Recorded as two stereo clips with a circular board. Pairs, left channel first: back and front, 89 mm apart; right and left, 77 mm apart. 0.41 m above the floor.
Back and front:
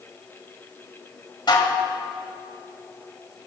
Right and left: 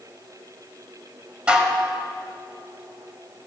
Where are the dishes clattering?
160° left, 1.2 m.